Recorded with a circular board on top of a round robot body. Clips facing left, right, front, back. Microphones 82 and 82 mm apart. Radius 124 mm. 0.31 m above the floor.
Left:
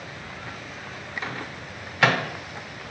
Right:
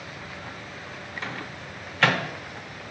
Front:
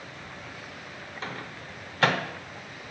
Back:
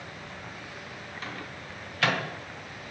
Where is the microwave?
20° left, 0.9 m.